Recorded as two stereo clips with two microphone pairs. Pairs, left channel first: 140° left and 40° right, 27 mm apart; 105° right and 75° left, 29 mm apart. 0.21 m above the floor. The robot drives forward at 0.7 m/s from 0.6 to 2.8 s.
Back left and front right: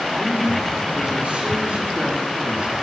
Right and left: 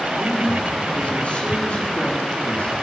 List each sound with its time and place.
0.2 s a man speaking: 60° right, 3.5 m; by 2.8 s 90° right, 3.5 m